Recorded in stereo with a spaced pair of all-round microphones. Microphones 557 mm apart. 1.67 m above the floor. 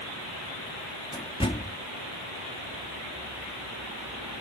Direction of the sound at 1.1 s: 10° left (ahead or behind).